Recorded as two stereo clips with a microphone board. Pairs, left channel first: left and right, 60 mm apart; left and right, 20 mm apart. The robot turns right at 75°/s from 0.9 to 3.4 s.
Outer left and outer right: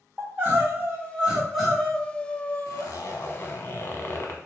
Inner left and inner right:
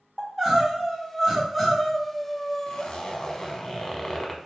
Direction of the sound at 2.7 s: 80° left.